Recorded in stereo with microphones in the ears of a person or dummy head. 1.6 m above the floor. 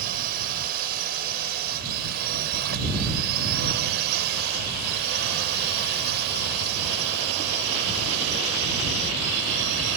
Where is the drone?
50° right (ahead or behind); by 10.0 s 70° right (ahead or behind).